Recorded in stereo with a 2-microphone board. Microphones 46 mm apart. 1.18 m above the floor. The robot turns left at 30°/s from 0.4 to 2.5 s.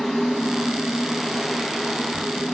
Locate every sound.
Only background noise.